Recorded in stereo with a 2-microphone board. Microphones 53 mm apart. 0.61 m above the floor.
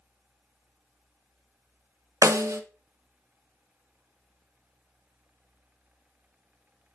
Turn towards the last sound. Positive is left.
turn(degrees=-85)